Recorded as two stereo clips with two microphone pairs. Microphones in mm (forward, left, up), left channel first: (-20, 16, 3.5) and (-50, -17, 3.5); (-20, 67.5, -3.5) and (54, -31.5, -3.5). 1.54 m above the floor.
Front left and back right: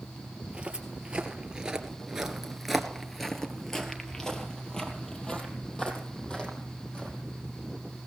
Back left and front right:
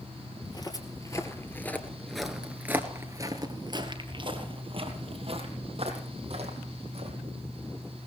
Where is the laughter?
No laughter in this recording.